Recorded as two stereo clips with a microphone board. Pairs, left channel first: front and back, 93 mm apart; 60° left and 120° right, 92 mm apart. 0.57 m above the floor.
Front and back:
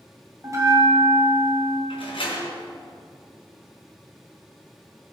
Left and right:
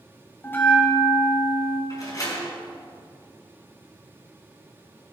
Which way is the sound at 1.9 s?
10° left.